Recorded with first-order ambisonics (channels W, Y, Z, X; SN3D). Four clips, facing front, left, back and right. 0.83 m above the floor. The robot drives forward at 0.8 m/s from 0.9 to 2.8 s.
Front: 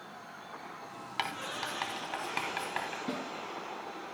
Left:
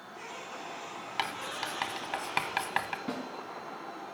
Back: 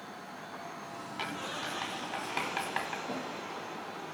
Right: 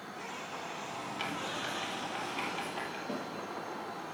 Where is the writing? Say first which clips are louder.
Left 4 dB, front 2 dB; 60° left, 2 m; by 3.0 s 100° left, 1.8 m.